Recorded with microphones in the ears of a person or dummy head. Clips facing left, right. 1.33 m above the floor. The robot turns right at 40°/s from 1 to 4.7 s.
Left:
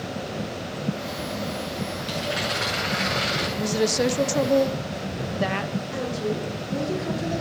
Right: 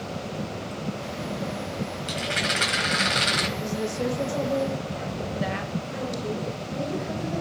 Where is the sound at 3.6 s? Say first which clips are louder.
Left 8 dB; 70° left, 0.6 m; by 5.8 s 115° left, 0.6 m.